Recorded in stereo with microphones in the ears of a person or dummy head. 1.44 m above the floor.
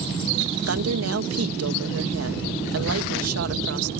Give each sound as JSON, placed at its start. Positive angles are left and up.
{"t": 0.7, "sound": "a woman speaking", "side_deg": -80}